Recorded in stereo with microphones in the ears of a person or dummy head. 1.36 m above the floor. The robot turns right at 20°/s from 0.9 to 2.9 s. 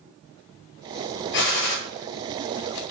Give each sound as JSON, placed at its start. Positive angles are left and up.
{"t": 1.3, "sound": "a gunshot", "side_deg": 55, "distance_m": 0.8}